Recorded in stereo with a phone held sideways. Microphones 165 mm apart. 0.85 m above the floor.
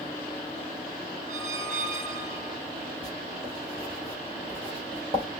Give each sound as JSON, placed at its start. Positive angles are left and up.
{"t": 1.3, "sound": "a squeak", "side_deg": -50, "distance_m": 1.6}
{"t": 3.0, "sound": "writing", "side_deg": -35, "distance_m": 2.5}